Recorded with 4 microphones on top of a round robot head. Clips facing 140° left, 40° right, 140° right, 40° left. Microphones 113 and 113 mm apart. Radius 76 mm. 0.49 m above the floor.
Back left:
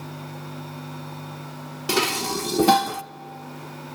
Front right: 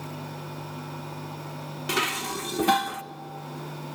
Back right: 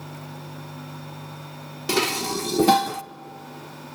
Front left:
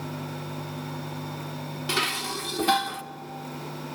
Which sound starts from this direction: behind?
Dishes clattering, at 1.9 s.